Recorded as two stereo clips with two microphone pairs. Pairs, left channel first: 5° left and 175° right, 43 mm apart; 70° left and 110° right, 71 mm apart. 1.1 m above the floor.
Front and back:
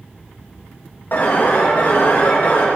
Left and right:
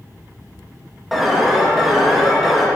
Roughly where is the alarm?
Ahead right.